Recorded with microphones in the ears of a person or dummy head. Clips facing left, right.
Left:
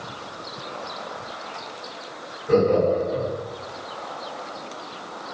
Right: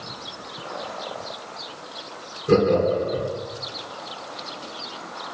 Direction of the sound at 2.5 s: 40° right (ahead or behind).